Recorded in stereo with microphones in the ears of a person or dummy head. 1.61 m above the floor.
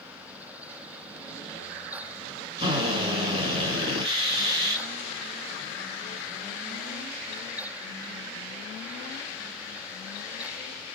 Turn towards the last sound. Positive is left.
turn(degrees=-30)  # may be behind; listen again after turning